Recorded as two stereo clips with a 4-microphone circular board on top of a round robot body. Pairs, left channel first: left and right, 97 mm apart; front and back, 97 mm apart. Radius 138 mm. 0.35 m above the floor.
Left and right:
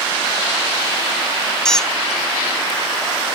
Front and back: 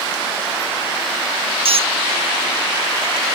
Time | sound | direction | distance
1.6 | a squeak | 175° left | ?